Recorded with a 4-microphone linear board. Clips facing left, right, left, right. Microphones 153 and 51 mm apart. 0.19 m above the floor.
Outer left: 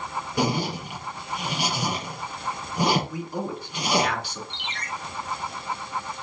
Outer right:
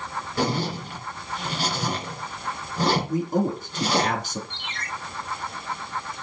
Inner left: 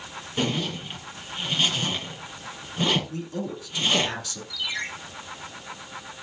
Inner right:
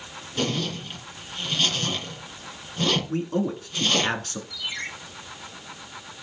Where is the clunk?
I don't hear a clunk.